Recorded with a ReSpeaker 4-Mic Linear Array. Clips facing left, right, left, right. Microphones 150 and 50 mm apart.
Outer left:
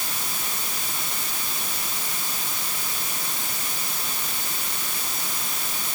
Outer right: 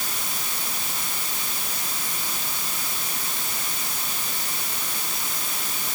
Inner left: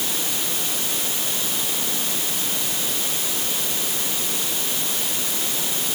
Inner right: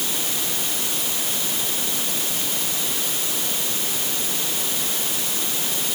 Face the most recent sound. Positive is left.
No sound to turn to.